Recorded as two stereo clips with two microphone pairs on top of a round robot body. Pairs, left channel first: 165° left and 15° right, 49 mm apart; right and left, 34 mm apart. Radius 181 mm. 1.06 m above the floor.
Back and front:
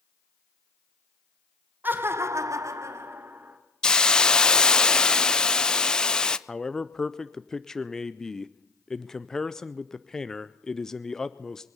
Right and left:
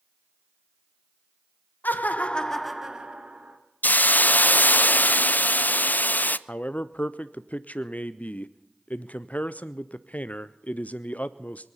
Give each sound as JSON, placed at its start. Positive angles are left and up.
{"t": 1.8, "sound": "laughter", "azimuth_deg": -70, "distance_m": 1.4}
{"t": 3.8, "sound": "a hiss", "azimuth_deg": -120, "distance_m": 0.5}
{"t": 6.5, "sound": "a man speaking", "azimuth_deg": -115, "distance_m": 0.6}